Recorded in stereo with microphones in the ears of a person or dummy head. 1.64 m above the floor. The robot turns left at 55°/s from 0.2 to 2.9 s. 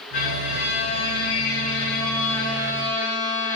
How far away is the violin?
About 3.5 m.